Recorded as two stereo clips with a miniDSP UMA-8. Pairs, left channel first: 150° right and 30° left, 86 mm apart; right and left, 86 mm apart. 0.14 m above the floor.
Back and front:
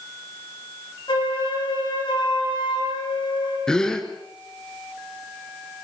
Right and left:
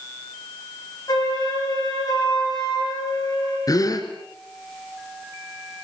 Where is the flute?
125° right, 8.5 m.